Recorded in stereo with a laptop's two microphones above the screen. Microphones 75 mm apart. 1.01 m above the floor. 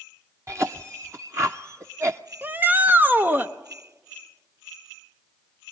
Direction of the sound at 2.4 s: 25° right (ahead or behind).